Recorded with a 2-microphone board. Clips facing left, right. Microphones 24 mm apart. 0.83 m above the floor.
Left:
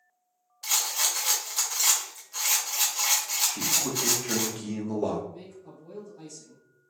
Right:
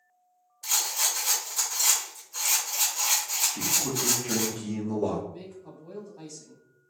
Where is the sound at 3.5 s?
30° left (ahead or behind), 0.7 m.